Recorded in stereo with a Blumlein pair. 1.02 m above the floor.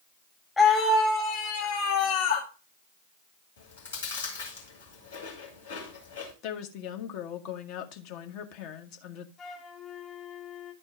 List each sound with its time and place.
0.6 s a scream: 15° left, 1.6 m; by 2.5 s 65° left, 1.9 m
3.6 s chewing: 65° left, 3 m
6.4 s a woman speaking: 40° left, 1.3 m
9.4 s a flute: 25° left, 2 m